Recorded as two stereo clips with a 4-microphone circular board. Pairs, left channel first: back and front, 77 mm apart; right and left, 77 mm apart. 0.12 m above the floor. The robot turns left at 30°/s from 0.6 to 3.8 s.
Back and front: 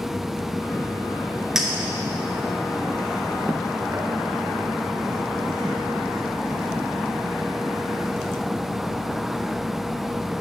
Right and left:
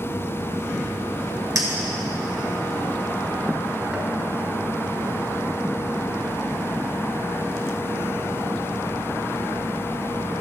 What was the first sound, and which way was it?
A clink, 80° left.